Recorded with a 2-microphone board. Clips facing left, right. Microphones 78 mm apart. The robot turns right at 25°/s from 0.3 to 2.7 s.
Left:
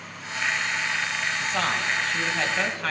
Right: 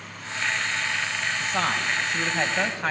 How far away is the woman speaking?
About 2 m.